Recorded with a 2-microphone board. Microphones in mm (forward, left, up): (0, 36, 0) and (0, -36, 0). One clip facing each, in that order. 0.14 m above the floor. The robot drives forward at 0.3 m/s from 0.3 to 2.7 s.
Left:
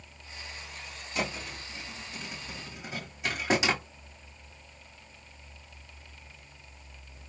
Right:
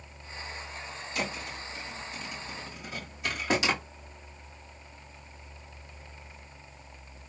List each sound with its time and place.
1.1 s a thud: 25° left (ahead or behind), 2.5 m